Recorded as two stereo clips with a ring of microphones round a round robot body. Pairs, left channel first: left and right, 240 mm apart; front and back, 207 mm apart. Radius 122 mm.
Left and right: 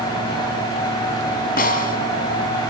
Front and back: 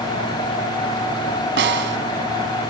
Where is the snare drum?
145° left, 2.5 m.